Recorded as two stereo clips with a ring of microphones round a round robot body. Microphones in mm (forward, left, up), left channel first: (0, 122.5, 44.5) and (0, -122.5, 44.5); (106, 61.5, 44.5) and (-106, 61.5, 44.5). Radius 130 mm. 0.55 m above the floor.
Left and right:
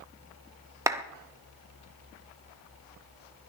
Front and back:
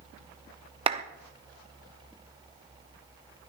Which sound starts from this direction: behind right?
A clap, at 0.9 s.